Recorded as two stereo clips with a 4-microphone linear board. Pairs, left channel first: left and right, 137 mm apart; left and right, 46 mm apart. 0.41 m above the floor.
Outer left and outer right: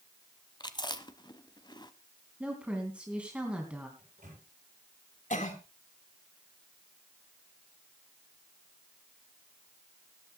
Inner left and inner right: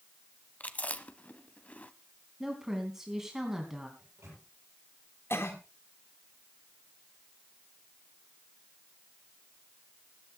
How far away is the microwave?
About 9 m.